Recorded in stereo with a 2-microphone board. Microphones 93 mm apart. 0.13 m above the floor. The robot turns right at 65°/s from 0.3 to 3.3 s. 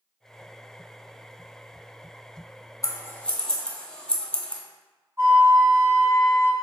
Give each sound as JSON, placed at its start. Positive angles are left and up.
{"t": 2.8, "sound": "scissors", "side_deg": 40, "distance_m": 0.8}
{"t": 5.2, "sound": "a flute", "side_deg": -35, "distance_m": 1.3}